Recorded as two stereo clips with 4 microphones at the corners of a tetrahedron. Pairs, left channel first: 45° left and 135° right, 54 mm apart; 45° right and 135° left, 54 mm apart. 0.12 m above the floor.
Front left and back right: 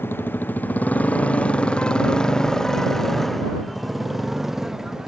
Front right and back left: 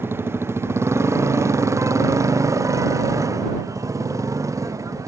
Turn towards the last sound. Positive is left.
turn(degrees=145)